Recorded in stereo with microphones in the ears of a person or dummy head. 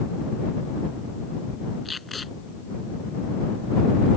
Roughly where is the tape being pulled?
Centre.